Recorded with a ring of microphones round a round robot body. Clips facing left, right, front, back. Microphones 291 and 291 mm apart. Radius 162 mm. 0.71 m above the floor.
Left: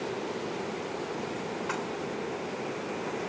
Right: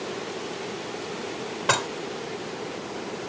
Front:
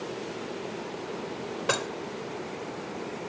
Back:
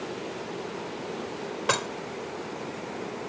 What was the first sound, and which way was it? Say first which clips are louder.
Dishes clattering: right 5 dB, even; 95° right.